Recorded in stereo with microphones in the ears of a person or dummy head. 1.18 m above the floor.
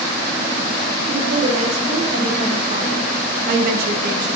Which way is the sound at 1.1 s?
35° right (ahead or behind).